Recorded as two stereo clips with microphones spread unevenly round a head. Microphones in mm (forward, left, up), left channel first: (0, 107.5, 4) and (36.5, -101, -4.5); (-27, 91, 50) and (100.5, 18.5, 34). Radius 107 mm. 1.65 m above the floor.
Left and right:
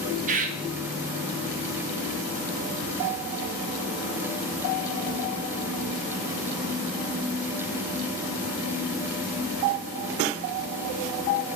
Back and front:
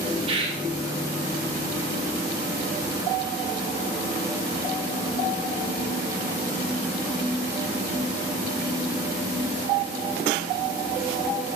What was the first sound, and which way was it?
A bird, 80° right.